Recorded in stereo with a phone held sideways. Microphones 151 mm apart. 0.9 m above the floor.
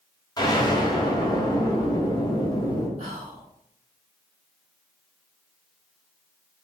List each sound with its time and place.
0.4 s an explosion: 25° left (ahead or behind), 1.2 m
3.0 s whispering: 45° right (ahead or behind), 1.9 m